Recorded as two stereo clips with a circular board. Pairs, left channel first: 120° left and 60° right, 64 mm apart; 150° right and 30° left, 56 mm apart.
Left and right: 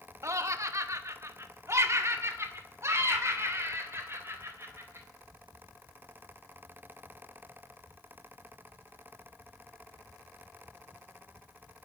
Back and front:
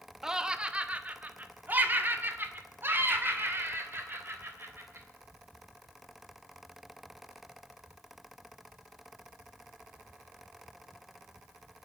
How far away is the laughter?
About 0.9 m.